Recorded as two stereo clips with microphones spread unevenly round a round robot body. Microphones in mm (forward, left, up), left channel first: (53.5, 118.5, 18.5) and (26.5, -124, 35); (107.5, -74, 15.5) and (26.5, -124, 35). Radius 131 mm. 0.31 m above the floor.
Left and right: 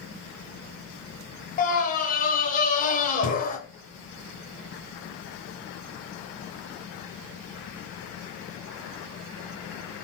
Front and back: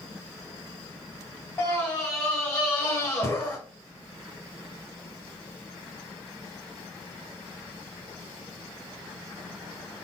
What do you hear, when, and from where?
1.6 s a scream: 65° left, 1.0 m